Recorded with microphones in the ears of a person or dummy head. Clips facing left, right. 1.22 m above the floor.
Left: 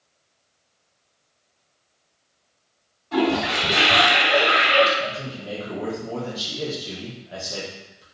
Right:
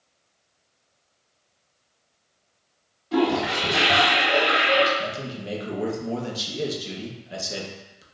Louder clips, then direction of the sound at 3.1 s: Even; 25° right (ahead or behind).